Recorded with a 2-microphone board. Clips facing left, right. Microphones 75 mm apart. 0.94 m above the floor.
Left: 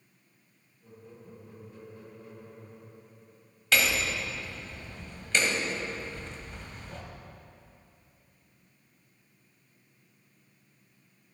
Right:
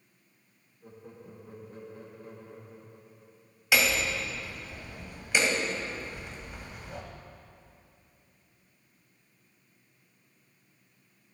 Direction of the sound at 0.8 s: 45° right (ahead or behind).